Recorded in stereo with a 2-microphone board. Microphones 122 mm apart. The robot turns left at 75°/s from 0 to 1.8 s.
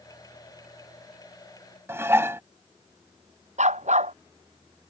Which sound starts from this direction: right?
A dog barking, at 3.6 s.